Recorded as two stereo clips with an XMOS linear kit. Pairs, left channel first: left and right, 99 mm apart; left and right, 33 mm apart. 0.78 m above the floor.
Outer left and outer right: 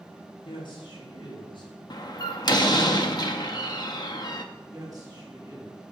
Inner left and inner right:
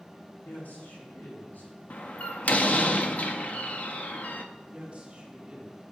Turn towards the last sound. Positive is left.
turn(degrees=-40)  # may be behind; listen again after turning